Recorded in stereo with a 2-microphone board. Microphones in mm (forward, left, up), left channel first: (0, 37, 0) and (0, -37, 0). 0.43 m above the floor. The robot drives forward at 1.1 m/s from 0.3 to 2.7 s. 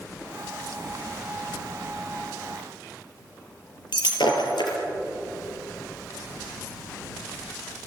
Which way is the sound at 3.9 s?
80° left.